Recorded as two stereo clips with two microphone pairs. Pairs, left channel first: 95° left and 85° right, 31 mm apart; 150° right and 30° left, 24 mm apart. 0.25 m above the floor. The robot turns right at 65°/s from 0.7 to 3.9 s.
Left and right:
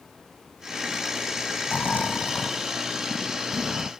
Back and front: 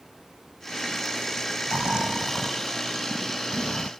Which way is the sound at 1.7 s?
65° left.